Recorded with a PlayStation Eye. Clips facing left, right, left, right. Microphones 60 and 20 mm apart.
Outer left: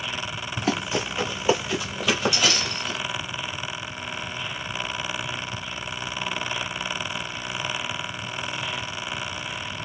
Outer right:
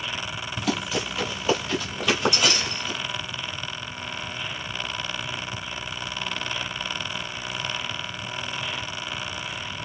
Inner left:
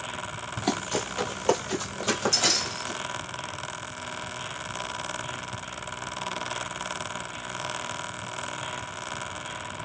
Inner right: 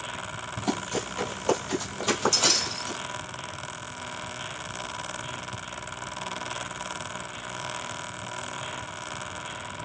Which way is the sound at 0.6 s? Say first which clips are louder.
Outer left 2 dB, inner left 1 dB; 35° left (ahead or behind).